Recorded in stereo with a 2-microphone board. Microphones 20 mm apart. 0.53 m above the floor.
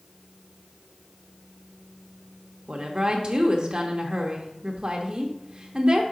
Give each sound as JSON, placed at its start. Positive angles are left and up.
{"t": 2.7, "sound": "a woman speaking", "side_deg": -45, "distance_m": 1.1}